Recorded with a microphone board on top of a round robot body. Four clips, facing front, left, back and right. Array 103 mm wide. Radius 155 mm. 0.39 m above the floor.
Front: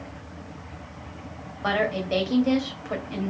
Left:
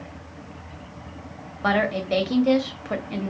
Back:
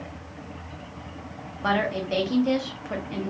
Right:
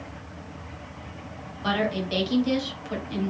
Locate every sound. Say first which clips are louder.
1.6 s a woman speaking: left 4 dB, even; 90° left, 1.3 m